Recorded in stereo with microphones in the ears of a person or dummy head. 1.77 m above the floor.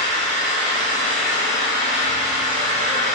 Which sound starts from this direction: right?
An engine running, at 0.0 s.